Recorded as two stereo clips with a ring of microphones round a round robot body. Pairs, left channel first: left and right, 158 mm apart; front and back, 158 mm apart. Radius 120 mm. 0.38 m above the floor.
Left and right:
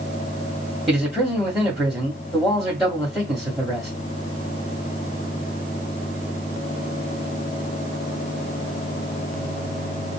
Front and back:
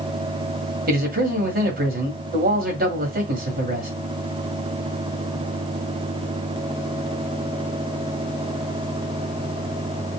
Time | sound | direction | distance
0.9 | a man speaking | straight behind | 1.9 m